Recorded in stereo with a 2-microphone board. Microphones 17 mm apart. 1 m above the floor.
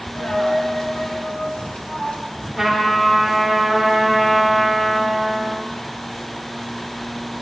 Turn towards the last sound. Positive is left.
turn(degrees=0)  # may be behind; listen again after turning